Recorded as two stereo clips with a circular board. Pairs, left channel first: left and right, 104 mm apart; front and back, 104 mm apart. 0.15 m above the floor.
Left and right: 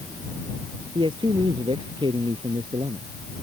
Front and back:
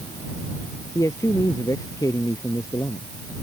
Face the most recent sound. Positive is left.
turn(degrees=-55)